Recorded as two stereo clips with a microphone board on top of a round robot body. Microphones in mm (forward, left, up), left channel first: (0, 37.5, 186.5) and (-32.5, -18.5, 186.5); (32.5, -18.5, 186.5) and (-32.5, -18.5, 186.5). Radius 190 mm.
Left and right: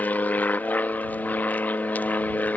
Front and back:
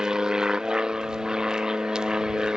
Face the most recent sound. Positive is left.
turn(degrees=105)